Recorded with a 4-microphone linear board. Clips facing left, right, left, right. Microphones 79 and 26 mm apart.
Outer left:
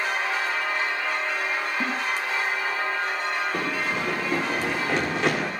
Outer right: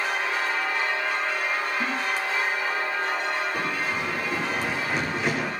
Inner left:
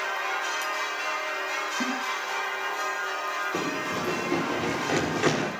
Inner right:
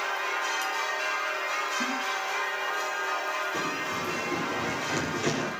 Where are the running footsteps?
70° left (ahead or behind), 8.5 m.